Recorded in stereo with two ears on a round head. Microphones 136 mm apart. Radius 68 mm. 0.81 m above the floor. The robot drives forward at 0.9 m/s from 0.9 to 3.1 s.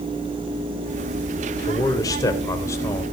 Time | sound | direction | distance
1.7 | a man speaking | 25° left (ahead or behind) | 2.5 m